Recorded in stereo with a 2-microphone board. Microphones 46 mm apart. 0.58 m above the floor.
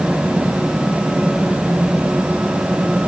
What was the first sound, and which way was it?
Only background noise.